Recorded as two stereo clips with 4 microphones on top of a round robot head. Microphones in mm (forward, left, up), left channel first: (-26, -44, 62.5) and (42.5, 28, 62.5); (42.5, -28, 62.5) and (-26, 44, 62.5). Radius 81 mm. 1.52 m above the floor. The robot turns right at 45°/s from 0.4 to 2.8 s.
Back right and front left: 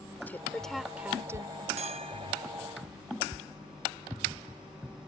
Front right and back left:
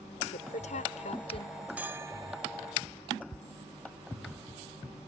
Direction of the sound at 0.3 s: 60° right.